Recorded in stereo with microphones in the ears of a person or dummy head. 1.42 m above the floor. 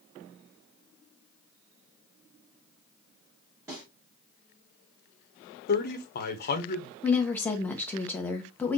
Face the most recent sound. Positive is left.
turn(degrees=10)  # may be behind; listen again after turning